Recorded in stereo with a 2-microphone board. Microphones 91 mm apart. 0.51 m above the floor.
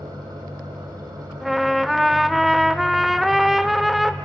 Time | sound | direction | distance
0.0 | an engine running | 45° right (ahead or behind) | 5.5 m
1.4 | a trumpet | centre (ahead or behind) | 0.6 m